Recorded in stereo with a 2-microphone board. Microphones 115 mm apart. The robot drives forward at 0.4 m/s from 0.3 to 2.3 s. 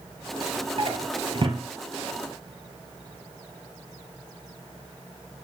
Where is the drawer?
50° right (ahead or behind), 1.8 m; by 1.6 s 45° right (ahead or behind), 2 m.